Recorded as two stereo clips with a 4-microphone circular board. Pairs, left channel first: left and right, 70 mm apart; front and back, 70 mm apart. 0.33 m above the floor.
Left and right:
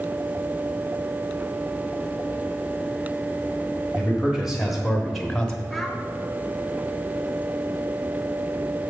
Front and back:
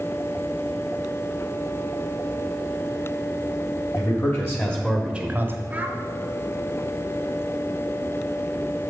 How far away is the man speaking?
About 1.7 m.